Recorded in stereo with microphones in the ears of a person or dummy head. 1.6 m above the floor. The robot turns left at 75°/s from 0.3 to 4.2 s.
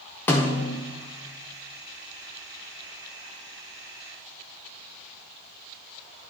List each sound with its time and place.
0.3 s a snare drum: 165° left, 0.5 m; by 0.8 s 130° left, 0.5 m